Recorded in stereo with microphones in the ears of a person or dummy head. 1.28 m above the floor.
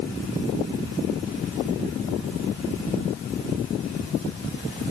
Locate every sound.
Only background noise.